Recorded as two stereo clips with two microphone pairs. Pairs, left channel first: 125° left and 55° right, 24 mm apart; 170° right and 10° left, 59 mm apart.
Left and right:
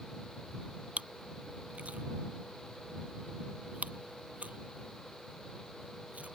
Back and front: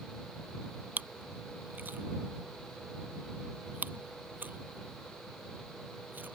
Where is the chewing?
50° right.